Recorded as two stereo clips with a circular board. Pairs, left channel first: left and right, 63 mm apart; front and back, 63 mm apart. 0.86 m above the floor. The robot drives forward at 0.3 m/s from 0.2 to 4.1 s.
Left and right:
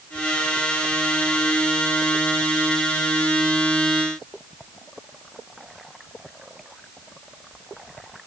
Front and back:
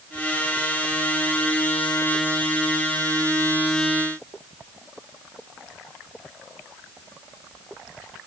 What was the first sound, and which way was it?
Only background noise.